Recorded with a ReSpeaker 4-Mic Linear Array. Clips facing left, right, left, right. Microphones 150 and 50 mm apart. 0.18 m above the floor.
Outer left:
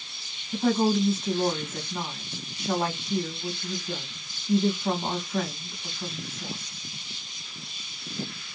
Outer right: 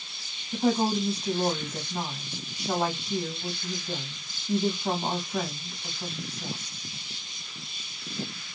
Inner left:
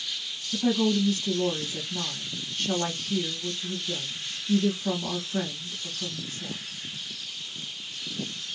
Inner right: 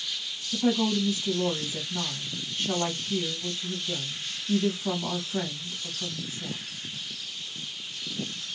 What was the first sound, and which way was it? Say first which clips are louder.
A woman speaking: outer left 2 dB, inner left 1 dB; 10° right (ahead or behind).